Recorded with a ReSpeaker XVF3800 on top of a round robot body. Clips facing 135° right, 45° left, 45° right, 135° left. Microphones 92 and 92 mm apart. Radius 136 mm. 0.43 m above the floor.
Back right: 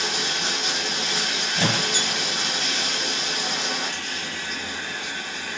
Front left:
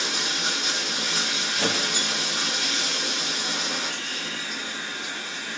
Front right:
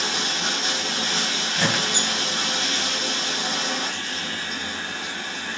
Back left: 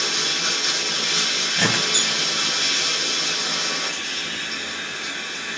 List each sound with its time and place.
0.0 s running water: 100° right, 2.5 m
1.6 s a squeak: 130° right, 1.0 m